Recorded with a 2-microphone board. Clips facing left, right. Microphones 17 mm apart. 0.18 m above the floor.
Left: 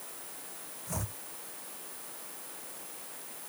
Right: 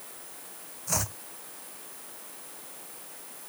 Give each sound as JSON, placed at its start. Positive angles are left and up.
{"t": 0.9, "sound": "chopping", "side_deg": -80}